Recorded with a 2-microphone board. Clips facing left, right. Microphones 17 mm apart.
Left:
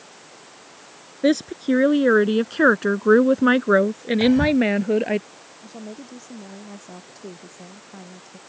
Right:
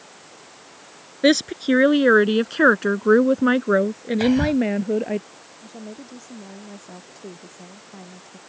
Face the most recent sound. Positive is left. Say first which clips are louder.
# left 1 dB
turn(degrees=10)  # may be behind; listen again after turning